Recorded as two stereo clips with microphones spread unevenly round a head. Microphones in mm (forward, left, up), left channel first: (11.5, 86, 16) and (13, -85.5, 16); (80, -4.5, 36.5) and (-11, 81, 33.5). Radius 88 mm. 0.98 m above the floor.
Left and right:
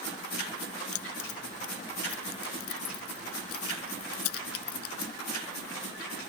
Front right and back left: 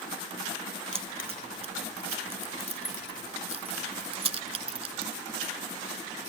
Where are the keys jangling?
95° left.